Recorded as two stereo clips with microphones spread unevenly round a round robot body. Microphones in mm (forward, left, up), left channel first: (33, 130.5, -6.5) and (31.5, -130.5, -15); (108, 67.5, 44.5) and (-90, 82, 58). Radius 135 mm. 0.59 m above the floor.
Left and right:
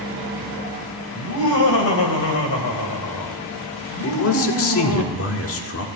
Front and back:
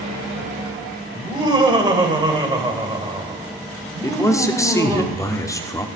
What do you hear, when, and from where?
1.1 s laughter: 110° left, 3.5 m
4.0 s a man speaking: 65° left, 1.6 m